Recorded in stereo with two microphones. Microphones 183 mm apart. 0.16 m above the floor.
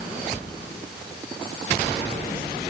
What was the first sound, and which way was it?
Only background noise.